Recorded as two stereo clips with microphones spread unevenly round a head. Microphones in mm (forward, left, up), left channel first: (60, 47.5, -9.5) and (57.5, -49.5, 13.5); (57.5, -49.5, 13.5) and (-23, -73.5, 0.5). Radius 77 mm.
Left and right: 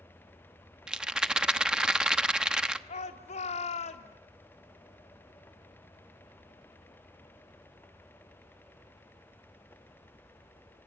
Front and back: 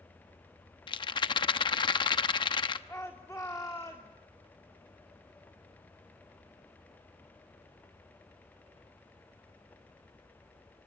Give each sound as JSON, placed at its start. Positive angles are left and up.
{"t": 0.9, "sound": "a rattle", "azimuth_deg": -10, "distance_m": 1.0}
{"t": 2.9, "sound": "a shout", "azimuth_deg": 90, "distance_m": 2.0}